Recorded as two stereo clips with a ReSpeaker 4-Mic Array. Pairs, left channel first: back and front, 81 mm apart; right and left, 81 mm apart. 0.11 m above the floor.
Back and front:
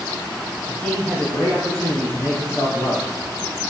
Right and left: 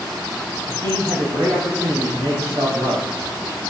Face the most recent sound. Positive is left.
turn(degrees=100)